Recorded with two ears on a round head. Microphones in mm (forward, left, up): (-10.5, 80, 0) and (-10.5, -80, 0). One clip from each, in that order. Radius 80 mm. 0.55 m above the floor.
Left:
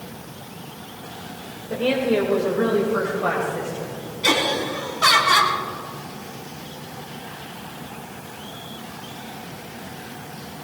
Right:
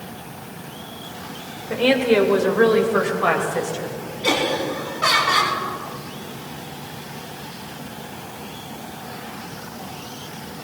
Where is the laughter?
35° left (ahead or behind), 4.5 m.